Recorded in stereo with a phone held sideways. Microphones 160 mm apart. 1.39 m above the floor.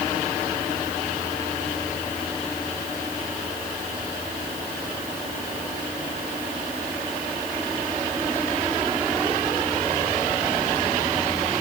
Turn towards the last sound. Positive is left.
No sound to turn to.